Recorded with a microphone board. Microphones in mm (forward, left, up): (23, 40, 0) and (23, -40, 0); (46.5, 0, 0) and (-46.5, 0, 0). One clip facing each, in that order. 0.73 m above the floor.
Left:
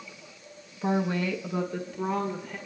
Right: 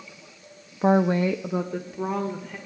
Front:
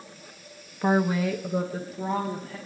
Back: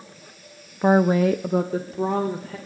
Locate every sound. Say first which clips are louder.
0.8 s a woman speaking: right 7 dB, back 6 dB; 110° right, 0.5 m; by 2.6 s 175° right, 2.0 m